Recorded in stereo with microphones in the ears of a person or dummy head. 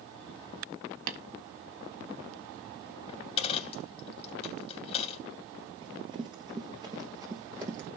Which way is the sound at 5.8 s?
25° right (ahead or behind).